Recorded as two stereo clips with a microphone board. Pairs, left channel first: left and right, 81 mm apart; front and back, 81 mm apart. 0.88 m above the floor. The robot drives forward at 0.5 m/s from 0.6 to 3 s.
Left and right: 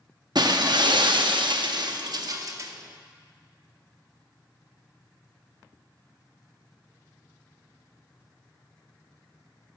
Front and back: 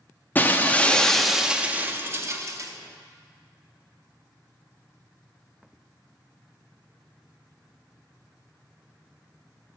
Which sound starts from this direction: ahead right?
Breaking glass, at 0.3 s.